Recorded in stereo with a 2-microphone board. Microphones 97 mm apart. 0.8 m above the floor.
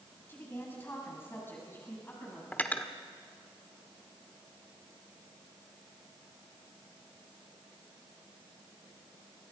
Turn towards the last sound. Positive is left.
turn(degrees=15)  # may be behind; listen again after turning